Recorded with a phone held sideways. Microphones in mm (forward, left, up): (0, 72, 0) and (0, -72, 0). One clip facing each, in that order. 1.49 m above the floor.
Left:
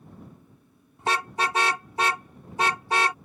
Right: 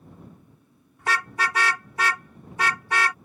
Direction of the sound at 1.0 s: 25° left (ahead or behind).